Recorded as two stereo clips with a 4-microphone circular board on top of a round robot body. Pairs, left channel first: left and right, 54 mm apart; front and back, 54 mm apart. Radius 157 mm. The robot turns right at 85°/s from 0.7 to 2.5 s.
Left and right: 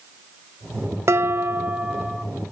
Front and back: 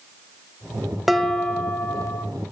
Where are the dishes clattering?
90° right, 0.9 m; by 2.2 s 10° left, 0.9 m.